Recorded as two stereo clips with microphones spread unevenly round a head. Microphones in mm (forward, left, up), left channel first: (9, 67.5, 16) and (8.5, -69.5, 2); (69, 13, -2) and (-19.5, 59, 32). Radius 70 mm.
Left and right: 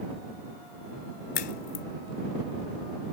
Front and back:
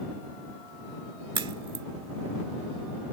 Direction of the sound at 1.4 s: 120° left.